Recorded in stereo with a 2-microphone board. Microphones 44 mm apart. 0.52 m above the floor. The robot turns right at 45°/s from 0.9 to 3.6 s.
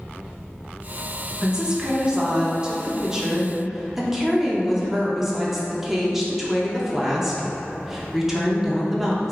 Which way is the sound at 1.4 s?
20° right (ahead or behind).